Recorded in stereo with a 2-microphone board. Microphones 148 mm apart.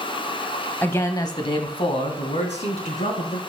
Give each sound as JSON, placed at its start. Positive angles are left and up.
{"t": 0.8, "sound": "a man speaking", "side_deg": 15, "distance_m": 1.0}